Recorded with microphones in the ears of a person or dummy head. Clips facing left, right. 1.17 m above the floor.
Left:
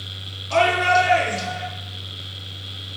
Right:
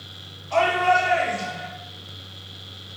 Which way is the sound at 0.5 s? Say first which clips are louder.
Left 1 dB; 65° left (ahead or behind).